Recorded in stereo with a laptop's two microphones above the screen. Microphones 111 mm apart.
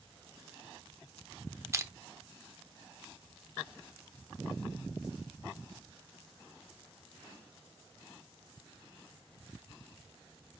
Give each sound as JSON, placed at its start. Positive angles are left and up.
{"t": 1.7, "sound": "crushing", "side_deg": -25, "distance_m": 0.6}